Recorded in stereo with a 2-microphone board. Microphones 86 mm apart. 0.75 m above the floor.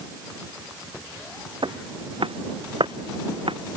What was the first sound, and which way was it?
Footsteps, 80° right.